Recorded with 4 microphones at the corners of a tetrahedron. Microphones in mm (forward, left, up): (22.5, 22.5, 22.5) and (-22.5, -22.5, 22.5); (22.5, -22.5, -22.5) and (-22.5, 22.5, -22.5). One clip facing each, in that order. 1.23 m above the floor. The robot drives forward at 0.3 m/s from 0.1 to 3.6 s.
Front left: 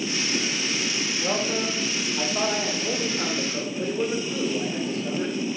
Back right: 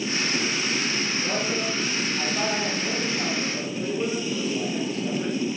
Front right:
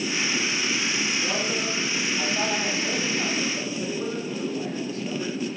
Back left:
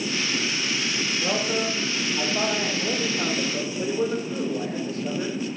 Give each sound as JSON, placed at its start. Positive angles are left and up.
{"t": 1.2, "sound": "a man speaking", "azimuth_deg": 95, "distance_m": 1.9}